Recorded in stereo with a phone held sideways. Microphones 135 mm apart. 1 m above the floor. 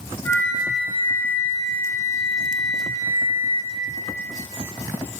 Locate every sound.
0.2 s a flute: 15° left (ahead or behind), 3 m